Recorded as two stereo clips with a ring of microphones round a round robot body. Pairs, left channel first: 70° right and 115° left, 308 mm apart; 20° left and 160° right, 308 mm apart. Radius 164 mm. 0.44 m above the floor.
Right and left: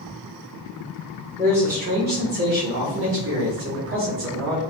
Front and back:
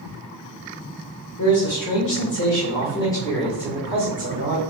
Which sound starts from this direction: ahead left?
A man speaking, at 1.4 s.